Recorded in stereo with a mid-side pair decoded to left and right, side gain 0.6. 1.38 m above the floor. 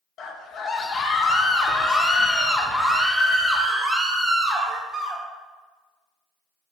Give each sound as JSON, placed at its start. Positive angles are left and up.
{"t": 0.2, "sound": "a scream", "azimuth_deg": 50, "distance_m": 2.5}